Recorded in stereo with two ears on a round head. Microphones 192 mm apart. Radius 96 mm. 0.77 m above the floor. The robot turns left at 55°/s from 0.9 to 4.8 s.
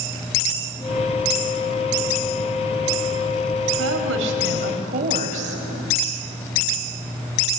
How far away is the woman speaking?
About 4 m.